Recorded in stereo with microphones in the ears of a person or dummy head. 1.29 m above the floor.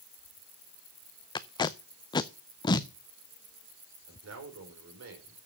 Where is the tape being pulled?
20° left (ahead or behind), 0.6 m.